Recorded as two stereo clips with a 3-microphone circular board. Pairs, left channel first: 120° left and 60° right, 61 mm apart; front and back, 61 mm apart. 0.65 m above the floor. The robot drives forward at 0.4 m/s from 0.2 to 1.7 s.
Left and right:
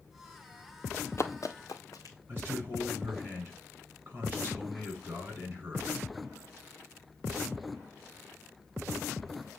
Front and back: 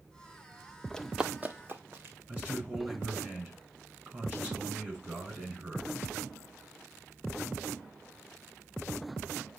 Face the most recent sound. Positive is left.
turn(degrees=-120)